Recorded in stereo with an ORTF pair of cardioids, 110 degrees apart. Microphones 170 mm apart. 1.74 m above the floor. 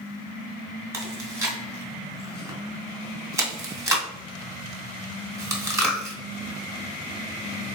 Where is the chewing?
15° right, 1.6 m.